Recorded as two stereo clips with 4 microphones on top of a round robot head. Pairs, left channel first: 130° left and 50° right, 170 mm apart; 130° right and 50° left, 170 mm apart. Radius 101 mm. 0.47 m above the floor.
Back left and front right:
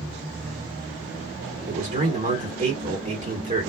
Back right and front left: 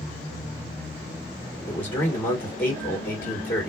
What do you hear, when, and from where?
1.7 s a man speaking: 55° right, 1.9 m